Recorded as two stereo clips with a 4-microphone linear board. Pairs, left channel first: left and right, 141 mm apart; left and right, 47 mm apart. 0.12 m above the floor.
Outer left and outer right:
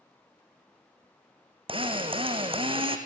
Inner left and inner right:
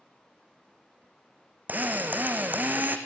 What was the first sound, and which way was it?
A drill, 40° right (ahead or behind).